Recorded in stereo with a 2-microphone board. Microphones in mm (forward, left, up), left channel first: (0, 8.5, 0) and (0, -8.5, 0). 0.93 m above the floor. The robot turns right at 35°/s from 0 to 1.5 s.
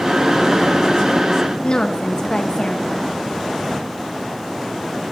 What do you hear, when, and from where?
1.6 s a woman speaking: 55° left (ahead or behind), 0.7 m